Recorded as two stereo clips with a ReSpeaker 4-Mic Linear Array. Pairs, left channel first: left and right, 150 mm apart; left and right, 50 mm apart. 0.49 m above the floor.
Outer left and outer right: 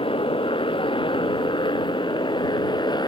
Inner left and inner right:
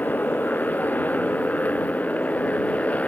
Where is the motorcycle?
35° left (ahead or behind); by 3.1 s 30° left (ahead or behind).